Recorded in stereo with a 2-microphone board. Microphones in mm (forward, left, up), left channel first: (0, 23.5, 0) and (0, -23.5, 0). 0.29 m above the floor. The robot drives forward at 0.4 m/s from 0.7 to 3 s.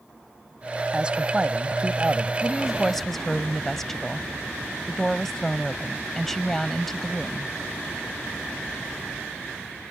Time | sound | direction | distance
0.9 | a man speaking | 20° right (ahead or behind) | ?
2.4 | a woman speaking | 10° left (ahead or behind) | ?